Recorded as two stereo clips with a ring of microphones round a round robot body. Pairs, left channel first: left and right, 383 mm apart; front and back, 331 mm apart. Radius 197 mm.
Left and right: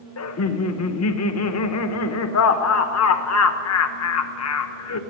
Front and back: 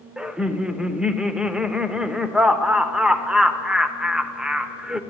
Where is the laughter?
95° left, 0.9 m.